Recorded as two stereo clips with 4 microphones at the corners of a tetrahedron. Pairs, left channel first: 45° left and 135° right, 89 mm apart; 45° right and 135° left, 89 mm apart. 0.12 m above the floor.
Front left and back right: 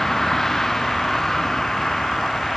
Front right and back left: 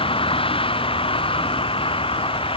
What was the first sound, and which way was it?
A vehicle, 40° right.